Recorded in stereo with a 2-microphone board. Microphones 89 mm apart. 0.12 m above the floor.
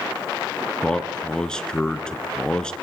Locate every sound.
0.8 s a man speaking: 10° left (ahead or behind), 1.3 m